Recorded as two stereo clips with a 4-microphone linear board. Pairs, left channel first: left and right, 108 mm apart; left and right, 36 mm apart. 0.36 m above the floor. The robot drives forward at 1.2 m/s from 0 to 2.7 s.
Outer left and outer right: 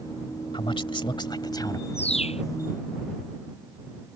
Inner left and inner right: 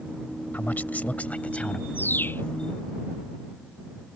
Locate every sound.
0.5 s a man speaking: 50° left (ahead or behind); by 1.8 s 35° left (ahead or behind)
1.9 s a bird: 75° left (ahead or behind); by 2.4 s 70° left (ahead or behind)